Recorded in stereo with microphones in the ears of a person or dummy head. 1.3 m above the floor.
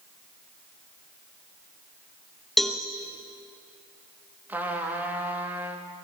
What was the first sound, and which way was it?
A cowbell, 5° left (ahead or behind).